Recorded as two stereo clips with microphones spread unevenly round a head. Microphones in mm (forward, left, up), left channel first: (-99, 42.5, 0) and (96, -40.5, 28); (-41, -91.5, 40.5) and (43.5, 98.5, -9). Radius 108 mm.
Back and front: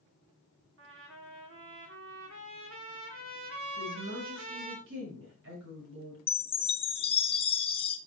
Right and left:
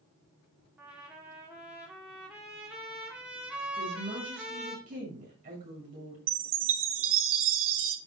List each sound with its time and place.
0.8 s a trumpet: 25° right, 1.8 m
3.8 s a woman speaking: 10° left, 6.5 m
6.3 s a chime: 90° left, 1.0 m